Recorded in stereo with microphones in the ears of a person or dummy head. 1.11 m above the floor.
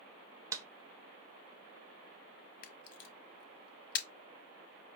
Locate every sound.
0.5 s a clap: 15° right (ahead or behind), 0.6 m
2.6 s a camera shutter: 60° left (ahead or behind), 0.7 m